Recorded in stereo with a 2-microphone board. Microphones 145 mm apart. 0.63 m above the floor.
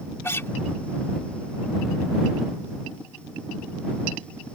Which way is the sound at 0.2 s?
15° left (ahead or behind).